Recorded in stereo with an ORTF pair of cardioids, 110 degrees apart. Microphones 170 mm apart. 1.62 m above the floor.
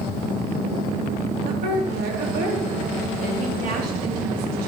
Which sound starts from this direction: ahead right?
A woman speaking, at 1.4 s.